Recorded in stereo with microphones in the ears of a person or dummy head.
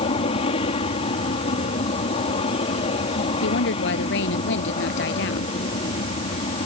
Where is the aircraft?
30° left (ahead or behind).